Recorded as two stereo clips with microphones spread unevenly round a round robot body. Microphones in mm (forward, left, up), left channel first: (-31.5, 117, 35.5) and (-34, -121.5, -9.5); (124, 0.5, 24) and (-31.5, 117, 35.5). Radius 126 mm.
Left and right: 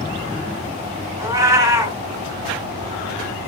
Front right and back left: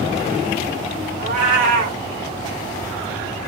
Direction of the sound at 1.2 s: 165° right.